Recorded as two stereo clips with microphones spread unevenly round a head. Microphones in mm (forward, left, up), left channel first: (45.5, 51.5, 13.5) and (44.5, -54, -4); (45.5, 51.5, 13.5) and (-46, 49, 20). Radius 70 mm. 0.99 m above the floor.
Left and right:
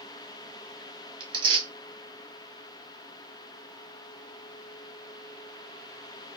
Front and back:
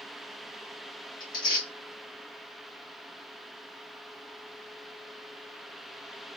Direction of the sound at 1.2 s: 55° right.